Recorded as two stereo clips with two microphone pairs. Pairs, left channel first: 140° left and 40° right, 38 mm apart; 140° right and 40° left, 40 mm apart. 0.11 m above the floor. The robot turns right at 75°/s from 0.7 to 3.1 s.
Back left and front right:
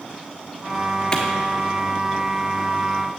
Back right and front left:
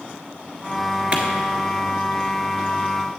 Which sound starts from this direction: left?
A clap, at 1.1 s.